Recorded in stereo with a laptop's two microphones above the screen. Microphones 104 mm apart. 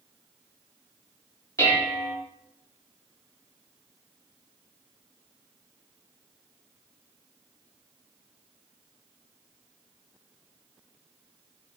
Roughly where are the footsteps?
I don't hear footsteps.